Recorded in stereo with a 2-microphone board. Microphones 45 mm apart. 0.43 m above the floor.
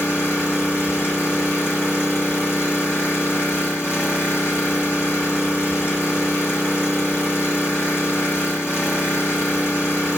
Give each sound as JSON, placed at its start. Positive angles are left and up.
{"t": 0.0, "sound": "an engine running", "side_deg": 60, "distance_m": 2.0}